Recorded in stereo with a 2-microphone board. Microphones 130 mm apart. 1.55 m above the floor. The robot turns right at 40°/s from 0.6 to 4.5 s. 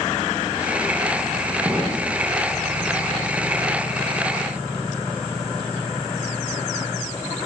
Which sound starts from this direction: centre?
An explosion, at 1.6 s.